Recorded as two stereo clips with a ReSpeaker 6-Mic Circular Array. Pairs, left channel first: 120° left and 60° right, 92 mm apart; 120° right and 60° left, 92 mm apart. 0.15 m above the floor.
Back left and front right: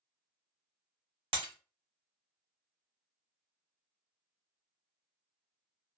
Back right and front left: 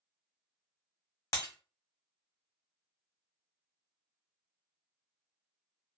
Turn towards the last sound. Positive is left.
turn(degrees=-70)